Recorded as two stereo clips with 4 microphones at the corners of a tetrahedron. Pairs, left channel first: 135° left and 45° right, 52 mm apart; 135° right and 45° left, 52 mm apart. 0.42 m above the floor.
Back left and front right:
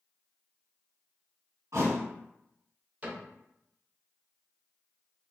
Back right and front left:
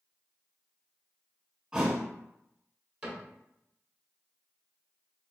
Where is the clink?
No clink in this recording.